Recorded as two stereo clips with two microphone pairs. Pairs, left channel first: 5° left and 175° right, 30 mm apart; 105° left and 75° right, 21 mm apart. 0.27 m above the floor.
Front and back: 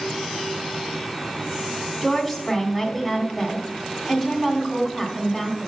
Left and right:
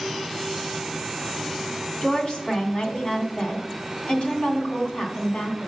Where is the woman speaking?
100° left, 2.5 m.